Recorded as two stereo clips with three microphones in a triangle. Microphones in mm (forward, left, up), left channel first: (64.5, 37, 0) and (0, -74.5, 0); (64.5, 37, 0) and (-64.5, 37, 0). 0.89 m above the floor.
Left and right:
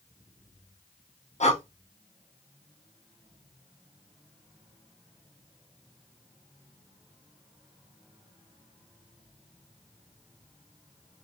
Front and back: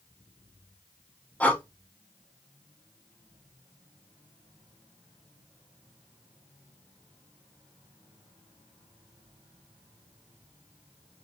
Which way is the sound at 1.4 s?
80° left.